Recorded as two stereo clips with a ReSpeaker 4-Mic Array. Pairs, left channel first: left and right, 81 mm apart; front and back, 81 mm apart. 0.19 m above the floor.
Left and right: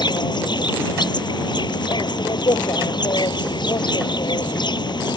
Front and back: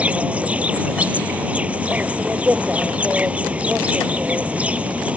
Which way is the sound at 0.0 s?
110° left.